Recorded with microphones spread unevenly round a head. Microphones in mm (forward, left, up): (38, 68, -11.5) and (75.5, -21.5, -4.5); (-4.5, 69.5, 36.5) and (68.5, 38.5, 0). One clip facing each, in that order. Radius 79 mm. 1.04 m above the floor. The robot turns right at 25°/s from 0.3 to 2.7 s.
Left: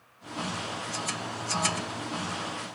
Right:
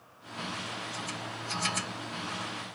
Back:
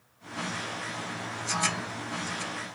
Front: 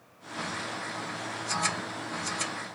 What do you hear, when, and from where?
Only background noise.